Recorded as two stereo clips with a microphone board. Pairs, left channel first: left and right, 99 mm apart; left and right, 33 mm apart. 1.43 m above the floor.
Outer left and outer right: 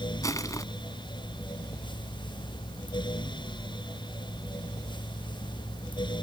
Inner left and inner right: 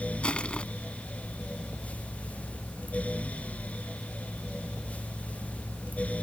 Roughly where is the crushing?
Left.